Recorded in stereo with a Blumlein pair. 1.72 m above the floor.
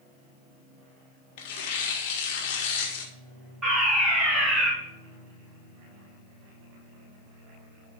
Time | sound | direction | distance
1.4 | tearing paper | 45° left | 1.7 m
3.6 | a fire alarm | 10° right | 5 m